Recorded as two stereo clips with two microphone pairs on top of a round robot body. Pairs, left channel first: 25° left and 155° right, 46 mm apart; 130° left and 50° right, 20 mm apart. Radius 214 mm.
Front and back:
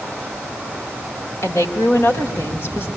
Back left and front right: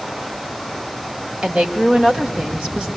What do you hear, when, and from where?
1.4 s a woman speaking: 5° right, 4.5 m